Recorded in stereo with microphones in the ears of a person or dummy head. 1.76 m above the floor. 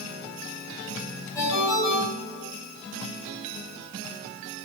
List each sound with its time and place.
1.4 s a ringtone: 30° left (ahead or behind), 4.5 m